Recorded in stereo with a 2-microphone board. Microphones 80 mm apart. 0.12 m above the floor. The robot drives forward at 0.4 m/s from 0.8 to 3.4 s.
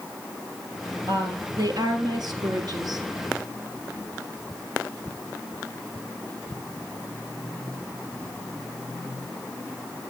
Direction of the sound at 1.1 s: 55° right (ahead or behind).